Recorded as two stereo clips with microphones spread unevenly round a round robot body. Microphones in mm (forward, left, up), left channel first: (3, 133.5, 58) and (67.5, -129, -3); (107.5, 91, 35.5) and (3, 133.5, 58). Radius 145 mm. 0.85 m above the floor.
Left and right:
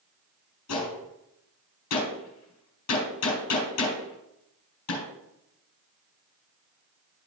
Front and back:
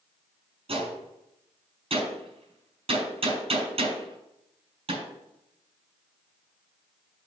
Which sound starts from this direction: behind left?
A gunshot, at 0.7 s.